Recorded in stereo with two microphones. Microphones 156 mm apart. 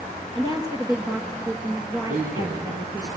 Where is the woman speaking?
25° right (ahead or behind), 2 m.